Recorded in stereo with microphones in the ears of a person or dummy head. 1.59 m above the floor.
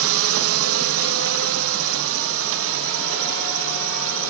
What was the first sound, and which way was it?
A drone, 75° right (ahead or behind).